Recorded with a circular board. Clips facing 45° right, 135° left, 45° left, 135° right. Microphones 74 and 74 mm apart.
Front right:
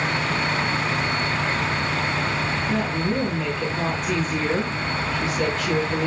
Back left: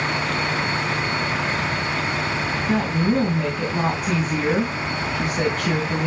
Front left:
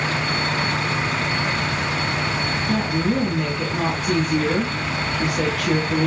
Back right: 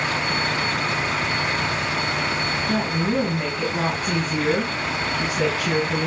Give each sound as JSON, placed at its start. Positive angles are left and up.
{"t": 2.7, "sound": "a woman speaking", "azimuth_deg": 155, "distance_m": 3.0}